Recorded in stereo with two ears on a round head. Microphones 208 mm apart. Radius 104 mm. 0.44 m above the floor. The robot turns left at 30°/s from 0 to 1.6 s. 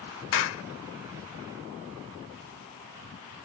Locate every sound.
0.3 s a clap: 60° left (ahead or behind)